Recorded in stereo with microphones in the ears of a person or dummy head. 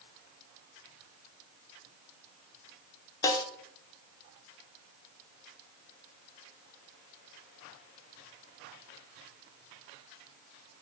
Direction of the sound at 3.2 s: 20° left (ahead or behind).